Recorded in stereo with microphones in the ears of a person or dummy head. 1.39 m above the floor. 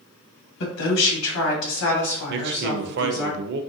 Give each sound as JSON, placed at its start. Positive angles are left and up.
{"t": 0.6, "sound": "a woman speaking", "side_deg": 70, "distance_m": 1.1}
{"t": 2.3, "sound": "a man speaking", "side_deg": -60, "distance_m": 0.5}